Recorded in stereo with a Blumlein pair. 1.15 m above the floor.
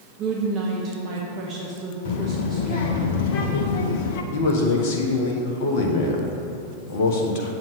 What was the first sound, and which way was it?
A woman speaking, 30° right.